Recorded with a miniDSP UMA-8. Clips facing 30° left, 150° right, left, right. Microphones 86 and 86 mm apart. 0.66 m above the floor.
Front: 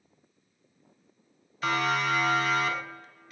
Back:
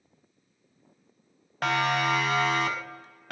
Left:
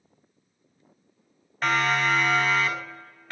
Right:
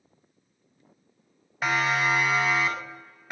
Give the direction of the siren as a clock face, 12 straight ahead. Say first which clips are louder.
Back 2 dB, left 1 dB; 6 o'clock.